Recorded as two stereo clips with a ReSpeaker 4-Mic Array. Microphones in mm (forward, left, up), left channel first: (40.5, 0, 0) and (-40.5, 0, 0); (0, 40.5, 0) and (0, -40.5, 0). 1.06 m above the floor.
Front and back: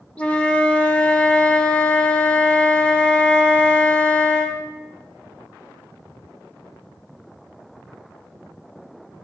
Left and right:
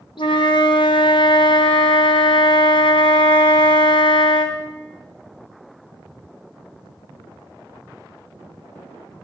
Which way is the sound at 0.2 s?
75° left.